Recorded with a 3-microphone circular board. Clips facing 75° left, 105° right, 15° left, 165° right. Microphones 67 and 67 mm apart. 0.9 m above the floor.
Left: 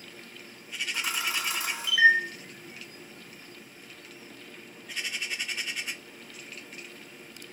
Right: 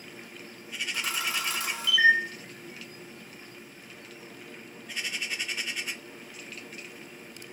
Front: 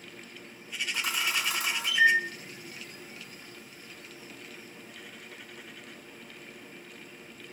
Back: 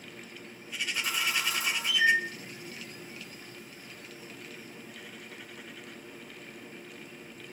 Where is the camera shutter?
5° right, 1.2 m.